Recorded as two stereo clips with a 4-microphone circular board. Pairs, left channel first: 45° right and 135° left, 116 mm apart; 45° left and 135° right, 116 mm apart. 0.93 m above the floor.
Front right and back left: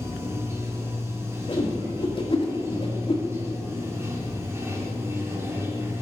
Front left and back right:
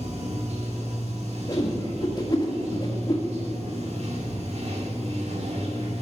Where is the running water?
155° right, 2 m.